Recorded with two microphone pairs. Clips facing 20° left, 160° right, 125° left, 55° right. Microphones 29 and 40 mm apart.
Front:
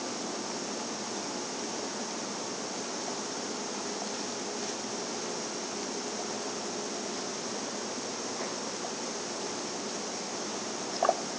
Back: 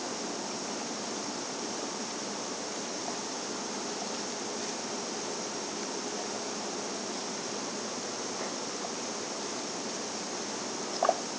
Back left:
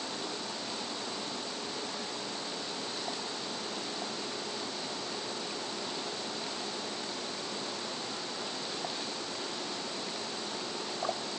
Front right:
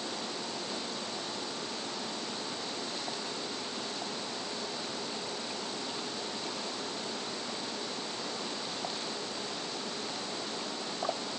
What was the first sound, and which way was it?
Only background noise.